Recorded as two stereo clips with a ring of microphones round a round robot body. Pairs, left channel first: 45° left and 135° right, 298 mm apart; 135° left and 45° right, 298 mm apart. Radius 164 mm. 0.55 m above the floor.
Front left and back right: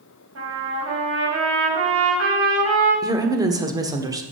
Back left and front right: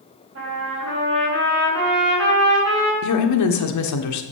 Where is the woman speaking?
150° left, 1.3 m.